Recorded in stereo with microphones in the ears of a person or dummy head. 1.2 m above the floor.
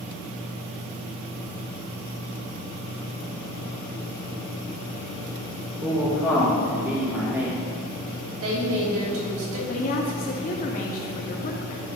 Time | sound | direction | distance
5.8 | a man speaking | 10° right (ahead or behind) | 2 m
8.3 | a woman speaking | 80° right | 3.5 m
9.7 | a woman speaking | 45° left (ahead or behind) | 1.5 m